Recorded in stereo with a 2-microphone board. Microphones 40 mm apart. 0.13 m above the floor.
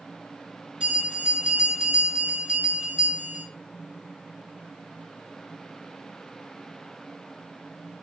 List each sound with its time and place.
0.8 s a bell: 30° right (ahead or behind), 2.0 m